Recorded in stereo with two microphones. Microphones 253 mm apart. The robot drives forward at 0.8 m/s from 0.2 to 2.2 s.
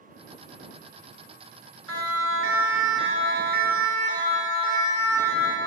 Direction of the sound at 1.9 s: 70° right (ahead or behind).